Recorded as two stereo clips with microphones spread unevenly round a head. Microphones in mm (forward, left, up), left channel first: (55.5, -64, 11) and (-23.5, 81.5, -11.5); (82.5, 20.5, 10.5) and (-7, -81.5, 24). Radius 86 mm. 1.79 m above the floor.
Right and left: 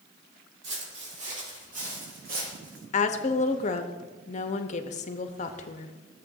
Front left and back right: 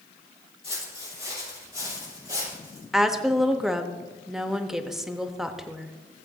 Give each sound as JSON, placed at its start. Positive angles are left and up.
{"t": 0.6, "sound": "footsteps", "azimuth_deg": 110, "distance_m": 4.0}
{"t": 2.9, "sound": "a woman speaking", "azimuth_deg": -50, "distance_m": 0.7}